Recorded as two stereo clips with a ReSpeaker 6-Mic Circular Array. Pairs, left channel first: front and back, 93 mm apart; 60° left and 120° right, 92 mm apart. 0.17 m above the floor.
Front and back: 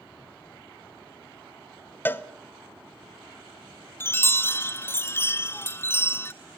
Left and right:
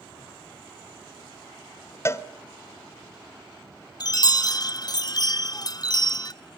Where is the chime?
55° left, 0.5 m.